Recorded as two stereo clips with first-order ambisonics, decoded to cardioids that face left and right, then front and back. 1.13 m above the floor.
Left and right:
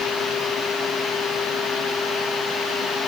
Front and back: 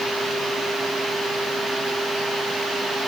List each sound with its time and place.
Only background noise.